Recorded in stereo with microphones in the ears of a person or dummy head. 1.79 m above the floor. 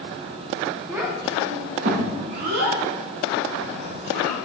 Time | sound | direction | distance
0.9 | a child speaking | 10° right (ahead or behind) | 1.1 m